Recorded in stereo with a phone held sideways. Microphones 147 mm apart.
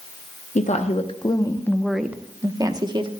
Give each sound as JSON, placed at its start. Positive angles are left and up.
{"t": 0.6, "sound": "a woman speaking", "side_deg": 55, "distance_m": 0.8}